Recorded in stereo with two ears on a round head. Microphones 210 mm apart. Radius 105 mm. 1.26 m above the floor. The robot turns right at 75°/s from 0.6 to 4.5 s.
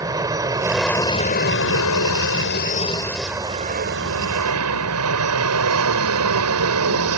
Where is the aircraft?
15° right; by 7.2 s 85° right.